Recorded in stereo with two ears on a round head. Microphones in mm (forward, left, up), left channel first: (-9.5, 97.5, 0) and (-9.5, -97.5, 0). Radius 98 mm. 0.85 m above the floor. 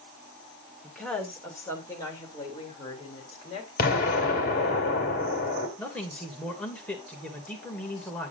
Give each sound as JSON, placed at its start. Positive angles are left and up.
{"t": 0.8, "sound": "a woman speaking", "side_deg": 0, "distance_m": 3.0}
{"t": 3.8, "sound": "an explosion", "side_deg": 40, "distance_m": 2.5}
{"t": 5.8, "sound": "a man speaking", "side_deg": 5, "distance_m": 2.5}